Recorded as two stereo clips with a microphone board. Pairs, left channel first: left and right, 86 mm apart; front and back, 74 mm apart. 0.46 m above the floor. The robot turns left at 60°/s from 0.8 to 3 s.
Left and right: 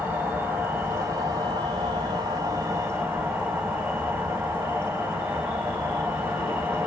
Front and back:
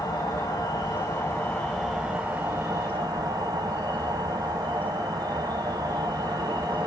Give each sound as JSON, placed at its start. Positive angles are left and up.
{"t": 0.0, "sound": "an insect", "azimuth_deg": -20, "distance_m": 1.4}